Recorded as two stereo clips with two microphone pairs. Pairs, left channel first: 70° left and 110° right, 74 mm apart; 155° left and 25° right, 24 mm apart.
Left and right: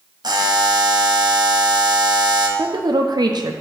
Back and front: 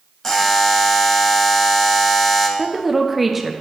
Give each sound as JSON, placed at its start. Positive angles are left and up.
{"t": 0.2, "sound": "a buzzer", "azimuth_deg": -135, "distance_m": 1.0}
{"t": 2.6, "sound": "a woman speaking", "azimuth_deg": -115, "distance_m": 0.8}